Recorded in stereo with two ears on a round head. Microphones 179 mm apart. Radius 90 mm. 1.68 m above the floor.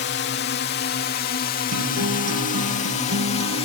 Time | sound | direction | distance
0.0 | a drone | 60° left (ahead or behind) | ?
1.7 | a guitar | 85° right | ?